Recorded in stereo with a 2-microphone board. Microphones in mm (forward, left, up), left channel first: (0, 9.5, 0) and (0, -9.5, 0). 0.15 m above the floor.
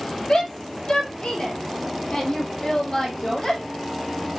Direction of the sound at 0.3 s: 65° left (ahead or behind).